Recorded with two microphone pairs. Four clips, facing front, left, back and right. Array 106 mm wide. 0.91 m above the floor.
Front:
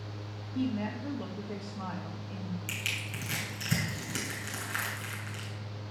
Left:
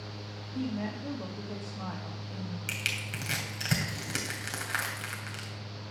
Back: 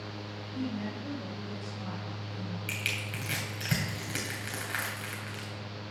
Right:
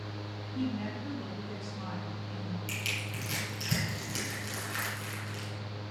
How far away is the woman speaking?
About 1.7 m.